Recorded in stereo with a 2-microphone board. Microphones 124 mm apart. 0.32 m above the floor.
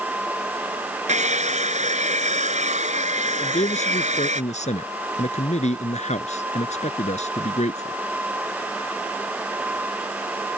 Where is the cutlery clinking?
I don't hear cutlery clinking.